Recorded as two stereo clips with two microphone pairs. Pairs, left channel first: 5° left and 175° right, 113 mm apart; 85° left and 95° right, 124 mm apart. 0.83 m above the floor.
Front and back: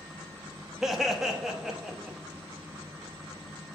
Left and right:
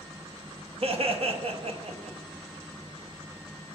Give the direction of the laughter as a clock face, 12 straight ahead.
3 o'clock.